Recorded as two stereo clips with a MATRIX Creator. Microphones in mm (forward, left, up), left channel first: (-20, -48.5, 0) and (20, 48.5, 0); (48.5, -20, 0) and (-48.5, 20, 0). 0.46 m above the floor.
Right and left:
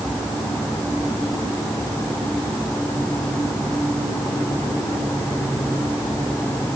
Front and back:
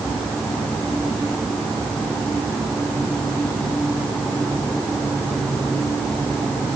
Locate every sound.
Only background noise.